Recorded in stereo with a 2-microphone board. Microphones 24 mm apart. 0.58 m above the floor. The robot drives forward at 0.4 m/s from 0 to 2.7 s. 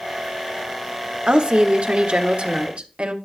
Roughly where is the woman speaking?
Right.